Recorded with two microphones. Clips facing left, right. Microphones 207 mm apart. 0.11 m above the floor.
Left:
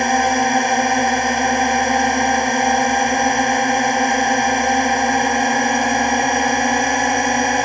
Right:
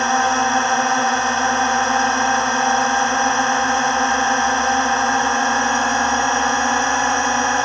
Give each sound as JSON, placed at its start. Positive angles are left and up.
{"t": 0.0, "sound": "a drone", "side_deg": 15}